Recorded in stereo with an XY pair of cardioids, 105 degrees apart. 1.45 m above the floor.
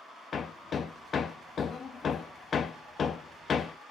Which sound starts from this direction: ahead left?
Hammering, at 0.3 s.